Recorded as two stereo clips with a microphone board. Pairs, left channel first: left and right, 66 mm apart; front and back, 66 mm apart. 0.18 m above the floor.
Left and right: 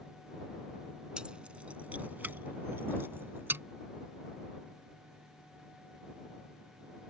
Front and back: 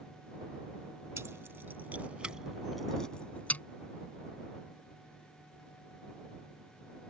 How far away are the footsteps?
No footsteps in this recording.